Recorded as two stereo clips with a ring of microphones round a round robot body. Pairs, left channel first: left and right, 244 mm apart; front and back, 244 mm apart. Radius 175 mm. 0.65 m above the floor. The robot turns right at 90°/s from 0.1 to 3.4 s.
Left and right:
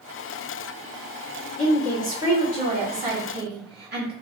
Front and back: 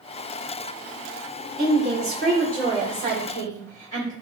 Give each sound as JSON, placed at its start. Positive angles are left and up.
{"t": 1.6, "sound": "a woman speaking", "azimuth_deg": 140, "distance_m": 1.5}